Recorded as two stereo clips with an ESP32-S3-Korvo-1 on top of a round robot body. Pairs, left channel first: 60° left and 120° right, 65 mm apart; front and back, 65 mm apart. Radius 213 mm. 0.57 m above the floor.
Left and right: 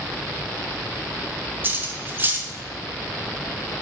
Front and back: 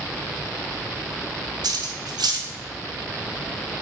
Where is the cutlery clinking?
175° left, 0.9 m.